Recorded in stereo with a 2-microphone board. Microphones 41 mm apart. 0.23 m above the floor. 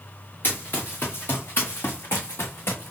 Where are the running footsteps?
60° left (ahead or behind), 2.0 m; by 2.9 s 80° left, 1.5 m.